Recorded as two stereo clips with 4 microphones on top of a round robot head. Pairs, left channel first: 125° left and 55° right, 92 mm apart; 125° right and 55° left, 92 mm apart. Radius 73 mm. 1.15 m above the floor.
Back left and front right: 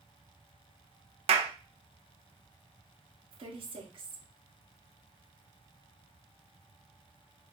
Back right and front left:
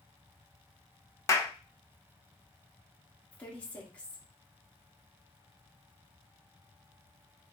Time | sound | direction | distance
1.3 | a clap | 65° right | 0.8 m
3.3 | a woman speaking | 50° right | 1.6 m